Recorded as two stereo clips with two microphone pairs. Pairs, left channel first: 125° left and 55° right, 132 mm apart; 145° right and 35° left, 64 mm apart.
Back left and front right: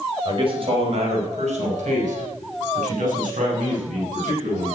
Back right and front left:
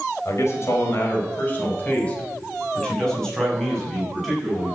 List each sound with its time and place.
0.2 s a man speaking: 105° right, 4.5 m; by 4.7 s 50° right, 8.5 m